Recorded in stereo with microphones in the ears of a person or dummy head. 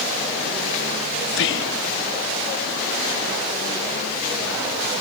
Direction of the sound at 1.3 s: 60° left (ahead or behind).